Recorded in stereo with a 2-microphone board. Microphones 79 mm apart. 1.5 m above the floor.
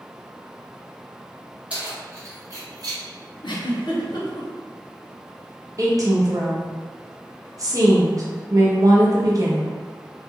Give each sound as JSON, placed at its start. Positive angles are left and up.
{"t": 1.7, "sound": "keys jangling", "side_deg": -15, "distance_m": 0.9}
{"t": 3.4, "sound": "a giggle", "side_deg": 70, "distance_m": 0.6}
{"t": 5.8, "sound": "a woman speaking", "side_deg": -45, "distance_m": 0.7}